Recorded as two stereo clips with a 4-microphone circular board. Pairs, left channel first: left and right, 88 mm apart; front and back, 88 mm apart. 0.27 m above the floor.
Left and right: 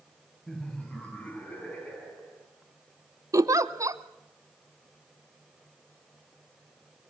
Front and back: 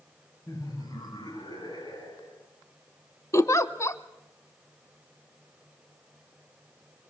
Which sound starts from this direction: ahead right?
A giggle, at 3.3 s.